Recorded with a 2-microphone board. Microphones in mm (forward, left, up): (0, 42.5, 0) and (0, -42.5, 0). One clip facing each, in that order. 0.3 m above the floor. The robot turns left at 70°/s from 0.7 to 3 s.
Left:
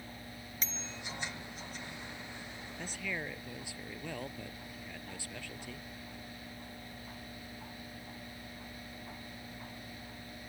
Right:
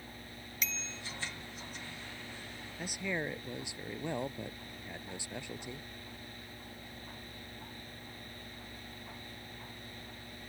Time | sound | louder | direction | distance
0.6 | a bicycle bell | right 2 dB | 35° left (ahead or behind) | ?
2.8 | a man speaking | right 4 dB | 5° right (ahead or behind) | ?